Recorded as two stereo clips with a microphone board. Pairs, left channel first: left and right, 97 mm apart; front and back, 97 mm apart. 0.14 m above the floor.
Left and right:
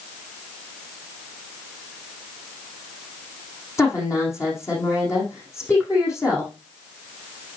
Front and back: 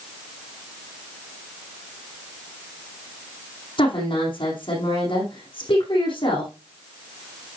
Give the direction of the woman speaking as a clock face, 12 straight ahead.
11 o'clock.